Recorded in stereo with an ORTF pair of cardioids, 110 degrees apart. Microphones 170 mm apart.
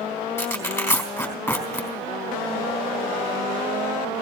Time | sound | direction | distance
0.4 | tearing paper | 15° left | 4 m